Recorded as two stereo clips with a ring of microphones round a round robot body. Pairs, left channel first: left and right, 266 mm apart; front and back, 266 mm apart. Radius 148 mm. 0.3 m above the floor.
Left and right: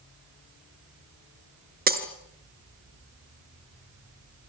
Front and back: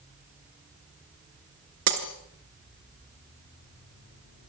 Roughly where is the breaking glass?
Behind right.